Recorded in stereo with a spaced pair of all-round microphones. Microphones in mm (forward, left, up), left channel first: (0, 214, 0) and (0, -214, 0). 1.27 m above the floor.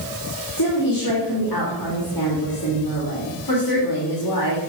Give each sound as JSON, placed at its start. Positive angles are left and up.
{"t": 0.6, "sound": "a woman speaking", "side_deg": 55, "distance_m": 2.5}